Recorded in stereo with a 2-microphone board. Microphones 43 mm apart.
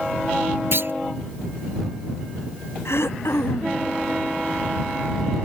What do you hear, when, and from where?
0.7 s a clunk: 60° right (ahead or behind)
2.9 s throat clearing: 70° left (ahead or behind)